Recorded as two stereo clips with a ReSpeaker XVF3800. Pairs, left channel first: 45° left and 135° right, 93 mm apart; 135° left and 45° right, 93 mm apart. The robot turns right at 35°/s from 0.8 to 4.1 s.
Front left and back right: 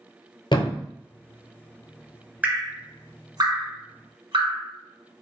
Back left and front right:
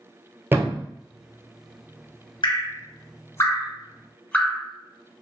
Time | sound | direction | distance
0.5 | a thud | 20° left | 0.5 m
2.4 | dripping | 155° left | 1.0 m